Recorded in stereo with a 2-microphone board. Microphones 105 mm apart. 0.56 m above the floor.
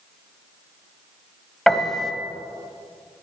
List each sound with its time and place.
1.7 s a piano: 5° left (ahead or behind), 1.1 m